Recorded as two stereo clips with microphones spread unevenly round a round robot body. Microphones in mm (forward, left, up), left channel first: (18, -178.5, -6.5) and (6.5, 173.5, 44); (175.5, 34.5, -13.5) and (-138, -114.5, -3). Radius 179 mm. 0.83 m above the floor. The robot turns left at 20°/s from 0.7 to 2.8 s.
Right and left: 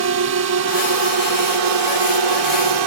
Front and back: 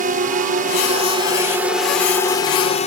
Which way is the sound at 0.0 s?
140° left.